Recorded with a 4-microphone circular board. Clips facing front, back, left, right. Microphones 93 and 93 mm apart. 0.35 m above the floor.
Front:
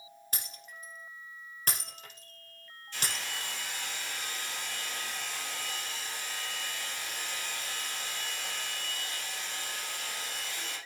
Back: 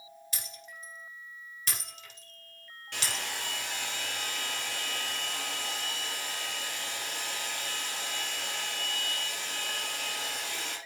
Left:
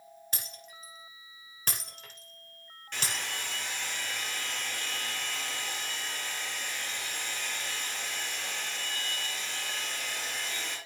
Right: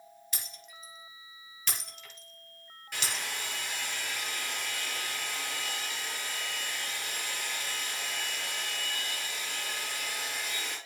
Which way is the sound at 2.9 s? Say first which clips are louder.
Back 2 dB, even; 175° right.